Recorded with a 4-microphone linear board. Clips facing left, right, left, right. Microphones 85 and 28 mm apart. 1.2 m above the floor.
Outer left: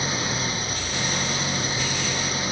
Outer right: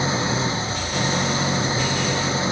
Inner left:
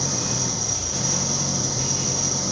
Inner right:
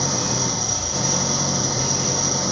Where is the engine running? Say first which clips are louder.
Outer right 5 dB, inner right 3 dB; 25° right (ahead or behind).